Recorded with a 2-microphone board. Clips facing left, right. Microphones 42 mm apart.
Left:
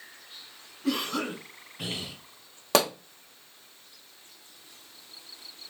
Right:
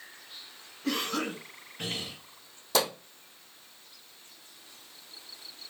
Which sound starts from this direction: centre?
A cough, at 0.8 s.